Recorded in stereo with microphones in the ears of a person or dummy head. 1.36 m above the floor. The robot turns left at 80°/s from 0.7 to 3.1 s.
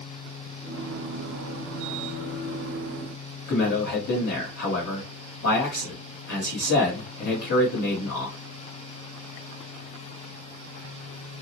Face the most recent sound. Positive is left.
turn(degrees=55)  # may be behind; listen again after turning